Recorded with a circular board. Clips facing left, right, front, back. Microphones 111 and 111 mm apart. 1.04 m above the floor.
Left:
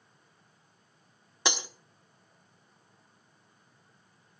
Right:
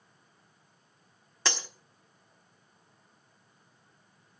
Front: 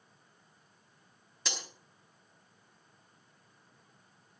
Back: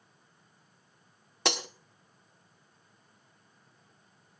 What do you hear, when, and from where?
1.4 s breaking glass: 165° left, 1.0 m